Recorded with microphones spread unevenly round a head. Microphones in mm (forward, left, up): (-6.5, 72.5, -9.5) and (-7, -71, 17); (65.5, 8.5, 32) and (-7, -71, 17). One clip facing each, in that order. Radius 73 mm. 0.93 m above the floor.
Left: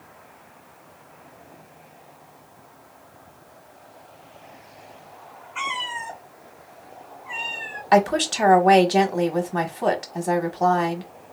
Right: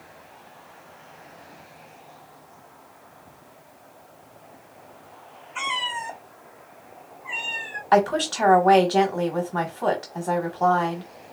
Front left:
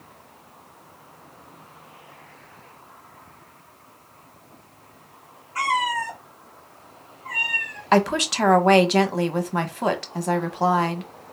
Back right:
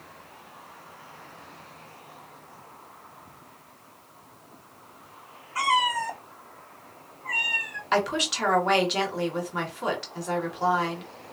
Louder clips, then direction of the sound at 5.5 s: Right 1 dB, front left 1 dB; 50° right.